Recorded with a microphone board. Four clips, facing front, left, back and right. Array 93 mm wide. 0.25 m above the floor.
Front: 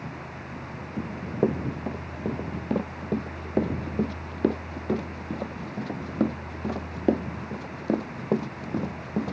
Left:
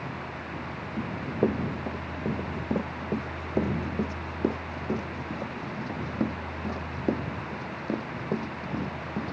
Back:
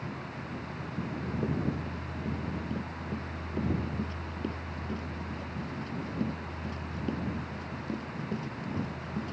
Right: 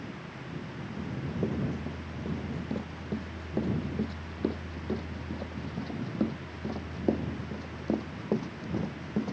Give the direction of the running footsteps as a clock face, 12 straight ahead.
11 o'clock.